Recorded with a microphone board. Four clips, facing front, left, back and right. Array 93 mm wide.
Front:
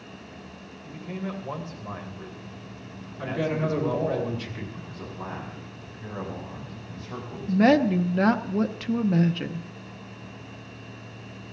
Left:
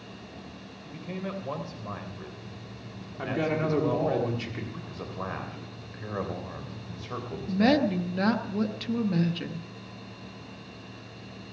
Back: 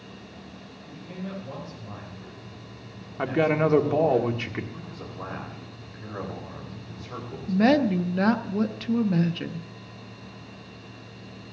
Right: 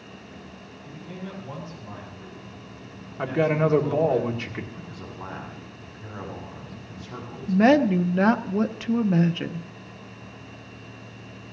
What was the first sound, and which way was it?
A man speaking, 50° left.